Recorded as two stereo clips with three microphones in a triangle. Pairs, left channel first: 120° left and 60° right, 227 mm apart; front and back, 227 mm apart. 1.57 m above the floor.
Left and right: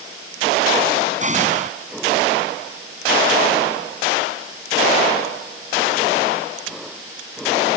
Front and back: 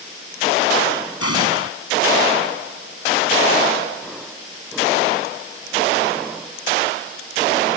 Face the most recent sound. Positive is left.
turn(degrees=0)